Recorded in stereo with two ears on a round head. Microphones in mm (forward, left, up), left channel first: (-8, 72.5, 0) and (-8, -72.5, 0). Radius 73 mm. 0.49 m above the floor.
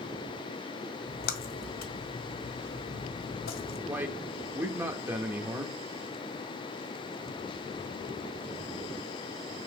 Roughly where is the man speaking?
Centre.